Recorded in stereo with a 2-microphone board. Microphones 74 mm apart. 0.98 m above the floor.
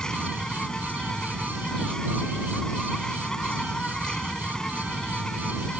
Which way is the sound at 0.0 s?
10° left (ahead or behind).